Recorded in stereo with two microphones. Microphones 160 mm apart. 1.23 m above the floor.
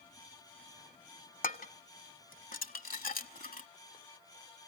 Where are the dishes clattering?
60° left (ahead or behind), 1.2 m.